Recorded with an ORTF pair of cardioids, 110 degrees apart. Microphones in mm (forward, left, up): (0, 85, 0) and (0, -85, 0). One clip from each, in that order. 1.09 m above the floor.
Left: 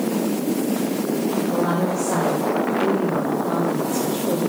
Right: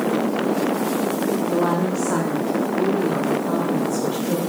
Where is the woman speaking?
35° right, 2.5 m; by 4.4 s 55° right, 4 m.